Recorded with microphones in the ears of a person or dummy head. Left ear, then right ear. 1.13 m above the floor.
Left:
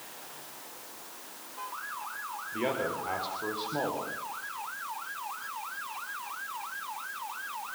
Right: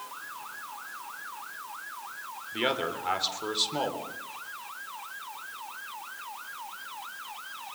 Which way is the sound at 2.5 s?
35° right (ahead or behind).